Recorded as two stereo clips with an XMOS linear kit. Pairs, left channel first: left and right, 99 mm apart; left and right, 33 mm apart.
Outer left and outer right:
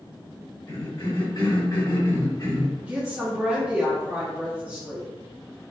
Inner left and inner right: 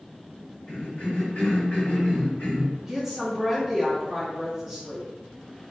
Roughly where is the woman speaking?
Centre.